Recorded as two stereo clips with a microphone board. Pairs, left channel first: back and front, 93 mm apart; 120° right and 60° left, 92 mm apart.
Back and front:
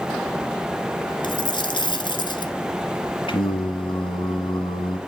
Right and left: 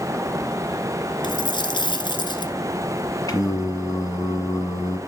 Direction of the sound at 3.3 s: 170° right.